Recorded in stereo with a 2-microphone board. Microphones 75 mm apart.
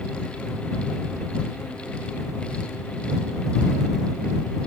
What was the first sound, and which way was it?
Only background noise.